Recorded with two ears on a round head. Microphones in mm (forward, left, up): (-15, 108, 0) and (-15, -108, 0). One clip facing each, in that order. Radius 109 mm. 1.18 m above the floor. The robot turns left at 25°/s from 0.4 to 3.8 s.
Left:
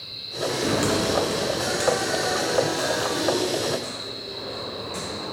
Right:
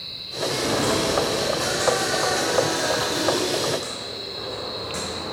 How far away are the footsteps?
About 1.2 m.